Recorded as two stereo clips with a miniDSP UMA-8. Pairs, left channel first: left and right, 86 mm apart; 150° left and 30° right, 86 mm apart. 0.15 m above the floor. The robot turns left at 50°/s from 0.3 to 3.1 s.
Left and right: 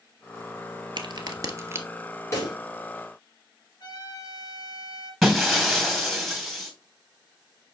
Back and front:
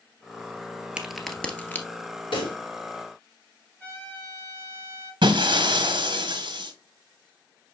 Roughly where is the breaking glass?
Ahead.